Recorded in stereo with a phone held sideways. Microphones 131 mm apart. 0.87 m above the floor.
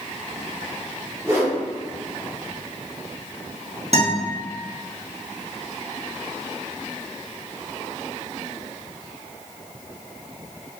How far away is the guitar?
About 1.3 m.